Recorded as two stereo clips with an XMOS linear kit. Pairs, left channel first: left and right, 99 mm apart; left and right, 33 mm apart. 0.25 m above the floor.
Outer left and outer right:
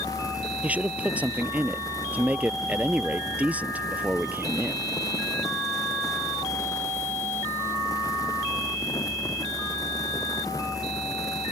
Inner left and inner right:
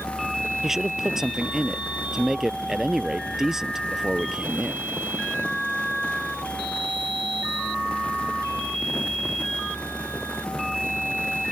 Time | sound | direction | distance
0.6 | a man speaking | 15° right (ahead or behind) | ?